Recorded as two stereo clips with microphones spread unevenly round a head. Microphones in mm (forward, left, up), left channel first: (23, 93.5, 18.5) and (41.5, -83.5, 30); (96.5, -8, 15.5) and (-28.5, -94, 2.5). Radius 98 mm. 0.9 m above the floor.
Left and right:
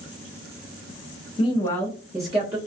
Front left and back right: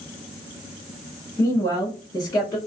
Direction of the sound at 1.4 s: 110° left.